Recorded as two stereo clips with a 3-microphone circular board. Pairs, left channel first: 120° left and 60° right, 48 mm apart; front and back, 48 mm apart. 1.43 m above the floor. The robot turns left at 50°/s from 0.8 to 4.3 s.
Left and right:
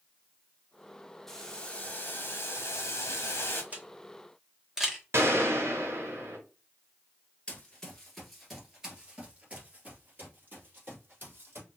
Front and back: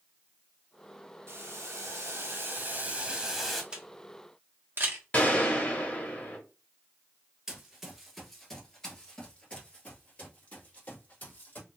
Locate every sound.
1.3 s boiling: 160° right, 0.9 m; by 3.6 s 85° left, 0.9 m
3.7 s a camera shutter: 115° right, 1.0 m; by 5.0 s 140° right, 1.0 m
5.1 s a gunshot: 55° right, 1.2 m
7.5 s running footsteps: 130° left, 1.5 m; by 11.7 s 40° right, 2.5 m